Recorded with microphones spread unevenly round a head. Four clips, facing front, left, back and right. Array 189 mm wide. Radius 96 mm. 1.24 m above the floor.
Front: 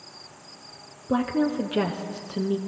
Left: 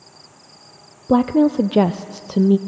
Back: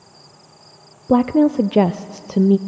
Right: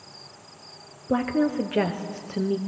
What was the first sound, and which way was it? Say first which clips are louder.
A woman speaking: left 8 dB, back 9 dB; 135° left.